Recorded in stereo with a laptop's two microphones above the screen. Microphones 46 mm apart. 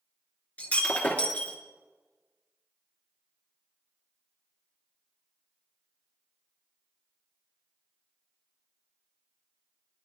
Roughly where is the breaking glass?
Left.